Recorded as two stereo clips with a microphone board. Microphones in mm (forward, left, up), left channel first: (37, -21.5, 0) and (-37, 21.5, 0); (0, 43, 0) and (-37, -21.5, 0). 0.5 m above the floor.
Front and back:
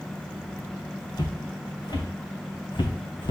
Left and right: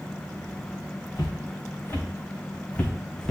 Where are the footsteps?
10° left, 2 m; by 3.3 s 25° right, 1.5 m.